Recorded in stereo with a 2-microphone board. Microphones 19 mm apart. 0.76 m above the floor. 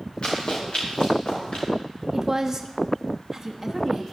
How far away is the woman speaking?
About 1.2 m.